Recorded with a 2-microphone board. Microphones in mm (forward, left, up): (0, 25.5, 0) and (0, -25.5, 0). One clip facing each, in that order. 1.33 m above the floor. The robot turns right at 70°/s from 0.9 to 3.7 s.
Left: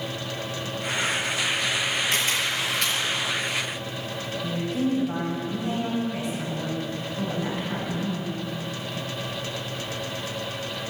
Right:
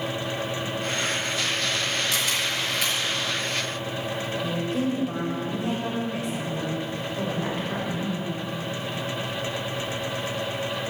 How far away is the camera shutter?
About 5.5 m.